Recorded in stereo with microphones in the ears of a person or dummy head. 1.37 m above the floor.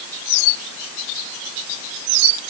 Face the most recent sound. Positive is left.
No sound to turn to.